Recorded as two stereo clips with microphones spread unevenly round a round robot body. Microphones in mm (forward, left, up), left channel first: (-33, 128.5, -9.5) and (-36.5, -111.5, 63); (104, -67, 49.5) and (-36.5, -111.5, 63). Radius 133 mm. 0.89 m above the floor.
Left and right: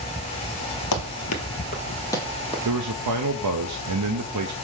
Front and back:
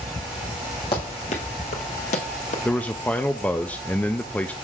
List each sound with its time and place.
0.9 s running footsteps: 90° left, 1.2 m; by 2.5 s 15° right, 1.5 m
2.6 s a man speaking: 60° right, 0.6 m